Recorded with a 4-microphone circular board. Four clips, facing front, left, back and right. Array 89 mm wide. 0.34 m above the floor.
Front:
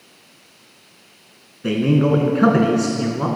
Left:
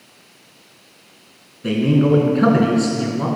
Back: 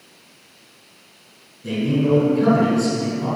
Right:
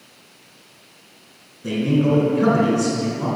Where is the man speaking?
20° left, 3 m.